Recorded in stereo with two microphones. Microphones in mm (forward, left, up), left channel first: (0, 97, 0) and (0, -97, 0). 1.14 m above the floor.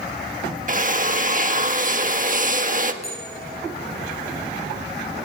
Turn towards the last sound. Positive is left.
turn(degrees=35)  # may be behind; listen again after turning